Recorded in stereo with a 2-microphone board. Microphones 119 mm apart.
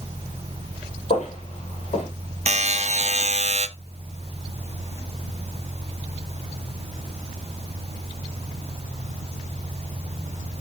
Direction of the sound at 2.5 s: 70° right (ahead or behind).